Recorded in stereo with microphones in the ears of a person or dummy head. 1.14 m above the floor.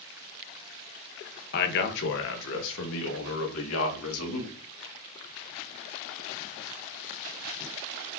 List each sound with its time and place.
1.5 s a man speaking: 55° left (ahead or behind), 1.3 m; by 4.5 s 80° left, 3 m